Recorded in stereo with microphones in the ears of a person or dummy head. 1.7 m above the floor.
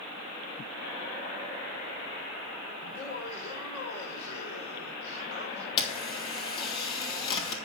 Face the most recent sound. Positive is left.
turn(degrees=25)  # may be behind; listen again after turning